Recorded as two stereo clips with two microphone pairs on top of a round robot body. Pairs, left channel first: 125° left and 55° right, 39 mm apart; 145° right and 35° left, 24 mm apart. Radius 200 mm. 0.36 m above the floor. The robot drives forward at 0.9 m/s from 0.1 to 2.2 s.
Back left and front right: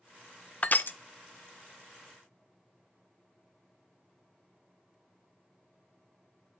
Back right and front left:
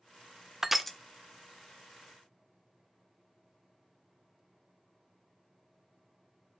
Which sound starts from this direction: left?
Crushing, at 0.6 s.